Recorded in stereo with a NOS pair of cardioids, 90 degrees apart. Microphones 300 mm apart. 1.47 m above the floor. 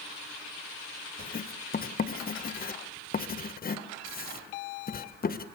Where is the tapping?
I don't hear tapping.